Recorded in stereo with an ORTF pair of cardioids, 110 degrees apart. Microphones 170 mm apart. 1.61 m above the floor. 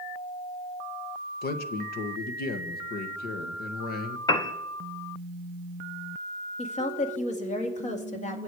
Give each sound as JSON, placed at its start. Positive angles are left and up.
{"t": 1.4, "sound": "a man speaking", "azimuth_deg": 65, "distance_m": 1.7}
{"t": 4.3, "sound": "a piano", "azimuth_deg": 25, "distance_m": 1.1}
{"t": 6.6, "sound": "a woman speaking", "azimuth_deg": 45, "distance_m": 2.5}